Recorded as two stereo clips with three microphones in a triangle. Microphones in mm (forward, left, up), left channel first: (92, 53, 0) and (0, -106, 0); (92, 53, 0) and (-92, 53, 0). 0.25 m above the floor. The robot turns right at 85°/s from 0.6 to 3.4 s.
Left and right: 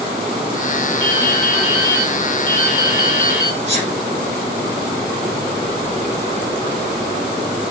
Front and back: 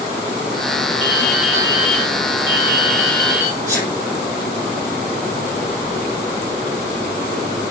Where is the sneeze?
75° right, 3 m.